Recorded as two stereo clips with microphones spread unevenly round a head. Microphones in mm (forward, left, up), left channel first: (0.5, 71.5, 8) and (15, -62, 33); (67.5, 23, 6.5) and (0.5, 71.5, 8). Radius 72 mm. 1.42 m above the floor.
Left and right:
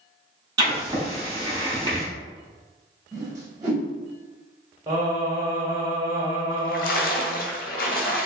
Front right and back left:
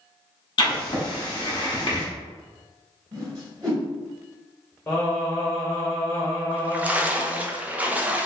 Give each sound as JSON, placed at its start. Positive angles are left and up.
{"t": 0.6, "sound": "writing", "azimuth_deg": -35, "distance_m": 1.2}
{"t": 3.1, "sound": "a whoosh", "azimuth_deg": -155, "distance_m": 1.9}
{"t": 4.9, "sound": "singing", "azimuth_deg": -105, "distance_m": 1.2}
{"t": 6.5, "sound": "a splash", "azimuth_deg": 75, "distance_m": 0.6}